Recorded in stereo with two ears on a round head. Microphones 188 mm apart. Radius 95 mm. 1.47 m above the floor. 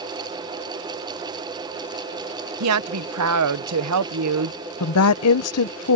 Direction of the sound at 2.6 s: 85° right.